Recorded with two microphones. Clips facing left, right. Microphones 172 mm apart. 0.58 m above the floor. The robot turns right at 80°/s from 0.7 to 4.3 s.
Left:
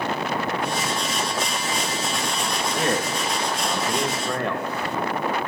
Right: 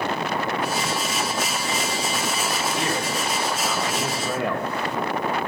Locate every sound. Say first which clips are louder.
2.8 s a man speaking: left 2 dB; 65° left, 2 m; by 4.7 s 175° right, 2 m